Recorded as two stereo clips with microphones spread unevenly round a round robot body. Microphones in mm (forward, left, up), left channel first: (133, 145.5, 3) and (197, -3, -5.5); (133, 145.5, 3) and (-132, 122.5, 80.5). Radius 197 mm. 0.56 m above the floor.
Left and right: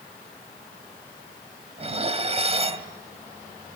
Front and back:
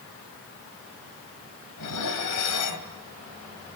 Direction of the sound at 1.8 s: 15° right.